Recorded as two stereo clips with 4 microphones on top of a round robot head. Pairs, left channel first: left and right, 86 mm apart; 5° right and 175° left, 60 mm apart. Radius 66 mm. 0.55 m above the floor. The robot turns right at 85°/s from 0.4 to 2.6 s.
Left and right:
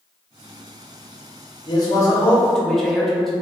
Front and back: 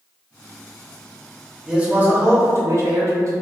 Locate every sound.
1.7 s a man speaking: 95° left, 1.0 m; by 3.3 s 175° left, 1.0 m